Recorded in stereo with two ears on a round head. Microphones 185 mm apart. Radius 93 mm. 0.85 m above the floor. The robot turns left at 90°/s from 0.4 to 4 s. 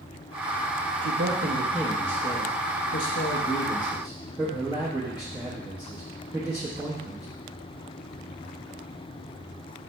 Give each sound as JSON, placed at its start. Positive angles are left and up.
{"t": 1.0, "sound": "a man speaking", "azimuth_deg": -100, "distance_m": 1.1}